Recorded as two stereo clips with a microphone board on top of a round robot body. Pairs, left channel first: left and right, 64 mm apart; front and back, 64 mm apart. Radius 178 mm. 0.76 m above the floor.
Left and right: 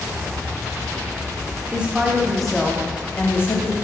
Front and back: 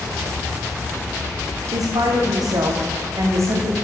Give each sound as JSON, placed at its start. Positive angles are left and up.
{"t": 1.7, "sound": "a woman speaking", "azimuth_deg": -160, "distance_m": 3.0}